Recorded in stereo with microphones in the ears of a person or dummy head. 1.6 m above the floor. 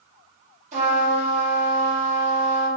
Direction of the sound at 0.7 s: 35° right (ahead or behind).